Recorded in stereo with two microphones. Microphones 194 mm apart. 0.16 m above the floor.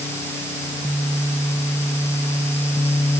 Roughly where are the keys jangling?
No keys jangling in this recording.